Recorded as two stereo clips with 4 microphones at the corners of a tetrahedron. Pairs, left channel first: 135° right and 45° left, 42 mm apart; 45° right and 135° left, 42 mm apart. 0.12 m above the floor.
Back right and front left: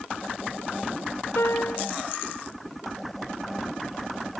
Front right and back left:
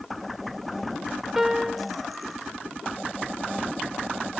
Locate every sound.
1.4 s a piano: 145° right